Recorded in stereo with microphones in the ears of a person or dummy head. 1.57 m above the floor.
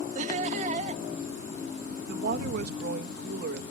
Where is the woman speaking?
65° right (ahead or behind).